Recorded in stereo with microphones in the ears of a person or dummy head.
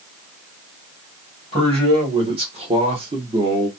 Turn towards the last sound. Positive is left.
turn(degrees=-15)  # may be behind; listen again after turning